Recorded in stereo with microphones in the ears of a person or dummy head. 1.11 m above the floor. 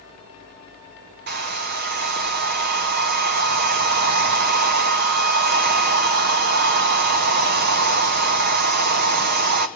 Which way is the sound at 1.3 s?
50° right (ahead or behind).